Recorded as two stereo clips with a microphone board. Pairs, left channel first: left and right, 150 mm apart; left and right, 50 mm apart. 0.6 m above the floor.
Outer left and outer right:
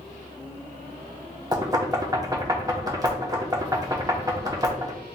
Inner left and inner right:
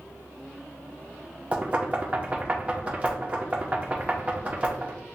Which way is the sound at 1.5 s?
25° right (ahead or behind).